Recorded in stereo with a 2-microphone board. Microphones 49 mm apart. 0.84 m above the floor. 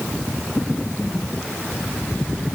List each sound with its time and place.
Only background noise.